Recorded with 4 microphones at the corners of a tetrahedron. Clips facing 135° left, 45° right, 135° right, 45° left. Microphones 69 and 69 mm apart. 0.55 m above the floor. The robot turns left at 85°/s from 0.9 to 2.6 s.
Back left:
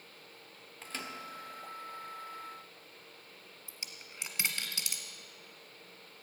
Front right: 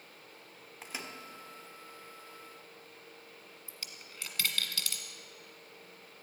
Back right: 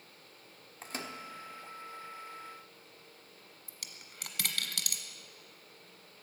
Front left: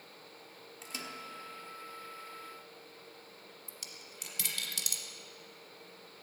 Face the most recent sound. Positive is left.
turn(degrees=-155)